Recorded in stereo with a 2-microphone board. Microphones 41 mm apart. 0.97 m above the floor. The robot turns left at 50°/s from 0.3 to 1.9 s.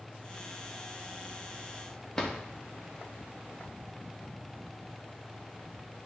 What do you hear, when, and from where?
2.2 s a drawer: 15° left (ahead or behind), 0.7 m